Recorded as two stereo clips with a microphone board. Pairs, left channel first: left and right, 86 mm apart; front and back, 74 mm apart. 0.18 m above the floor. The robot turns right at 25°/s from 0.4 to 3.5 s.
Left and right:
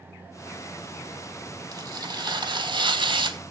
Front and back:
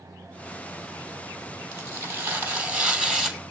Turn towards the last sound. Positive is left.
turn(degrees=-90)